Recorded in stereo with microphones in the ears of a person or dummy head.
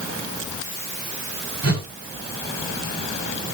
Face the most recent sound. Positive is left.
turn(degrees=-85)